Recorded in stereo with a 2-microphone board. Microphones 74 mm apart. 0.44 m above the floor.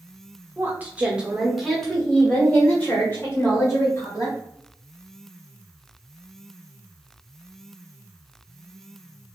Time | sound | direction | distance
0.6 | a woman speaking | 30° right (ahead or behind) | 1.2 m